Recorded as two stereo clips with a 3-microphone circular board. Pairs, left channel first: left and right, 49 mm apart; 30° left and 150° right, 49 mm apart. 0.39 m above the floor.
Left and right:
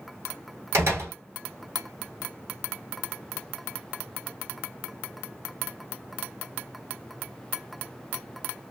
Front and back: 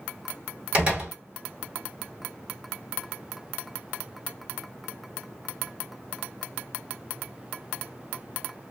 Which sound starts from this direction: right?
A door slam, at 0.7 s.